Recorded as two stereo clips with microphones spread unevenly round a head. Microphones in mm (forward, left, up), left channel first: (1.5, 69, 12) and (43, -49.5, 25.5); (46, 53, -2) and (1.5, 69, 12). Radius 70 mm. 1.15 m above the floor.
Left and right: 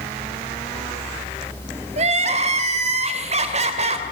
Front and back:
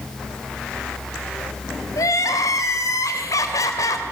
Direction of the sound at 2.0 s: 35° right.